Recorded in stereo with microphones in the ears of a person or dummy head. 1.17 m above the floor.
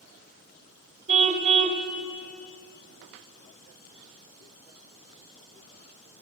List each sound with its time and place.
1.1 s a car horn: 40° right (ahead or behind), 2 m